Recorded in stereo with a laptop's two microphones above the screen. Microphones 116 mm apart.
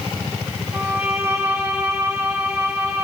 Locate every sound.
0.7 s a violin: 25° right (ahead or behind), 4.5 m